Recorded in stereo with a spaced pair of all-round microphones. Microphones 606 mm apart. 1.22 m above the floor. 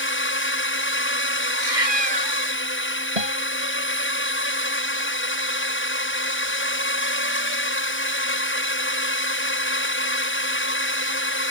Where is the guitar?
85° right.